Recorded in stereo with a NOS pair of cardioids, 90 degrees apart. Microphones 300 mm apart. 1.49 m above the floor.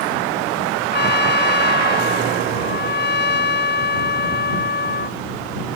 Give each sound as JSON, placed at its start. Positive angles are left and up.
{"t": 0.9, "sound": "a trumpet", "azimuth_deg": 35}